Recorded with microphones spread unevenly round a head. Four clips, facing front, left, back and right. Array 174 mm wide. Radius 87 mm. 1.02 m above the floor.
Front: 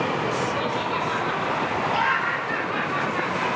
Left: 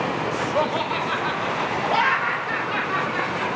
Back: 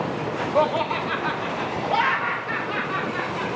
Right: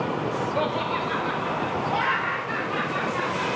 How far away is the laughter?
About 0.5 m.